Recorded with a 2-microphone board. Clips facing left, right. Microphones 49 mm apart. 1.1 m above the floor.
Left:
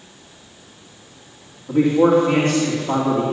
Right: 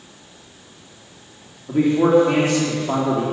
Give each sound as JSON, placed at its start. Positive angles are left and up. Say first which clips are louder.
{"t": 1.7, "sound": "a man speaking", "louder": "left 1 dB", "side_deg": 0, "distance_m": 3.0}